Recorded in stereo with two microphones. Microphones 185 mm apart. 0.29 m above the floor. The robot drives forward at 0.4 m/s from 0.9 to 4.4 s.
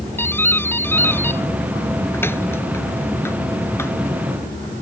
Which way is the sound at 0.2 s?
10° left (ahead or behind).